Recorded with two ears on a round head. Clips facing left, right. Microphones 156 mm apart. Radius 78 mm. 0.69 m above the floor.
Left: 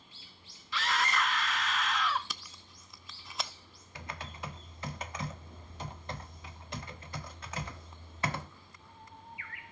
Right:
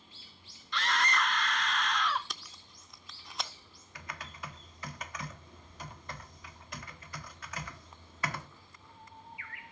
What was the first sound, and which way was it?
A scream, 5° left (ahead or behind).